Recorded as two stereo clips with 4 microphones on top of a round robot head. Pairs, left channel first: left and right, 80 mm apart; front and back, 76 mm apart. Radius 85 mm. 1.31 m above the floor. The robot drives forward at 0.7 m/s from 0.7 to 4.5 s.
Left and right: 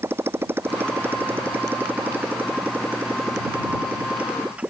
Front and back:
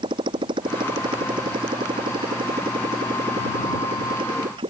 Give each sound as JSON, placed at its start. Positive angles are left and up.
{"t": 0.0, "sound": "a motorcycle", "azimuth_deg": -150}